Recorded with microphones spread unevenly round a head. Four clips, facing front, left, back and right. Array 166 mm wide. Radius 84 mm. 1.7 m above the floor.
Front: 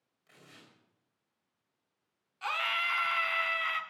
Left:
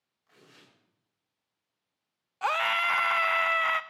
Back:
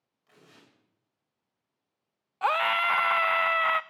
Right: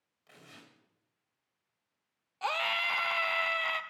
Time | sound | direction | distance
0.3 | tearing paper | 95° right | 8 m
2.4 | a scream | 170° left | 0.6 m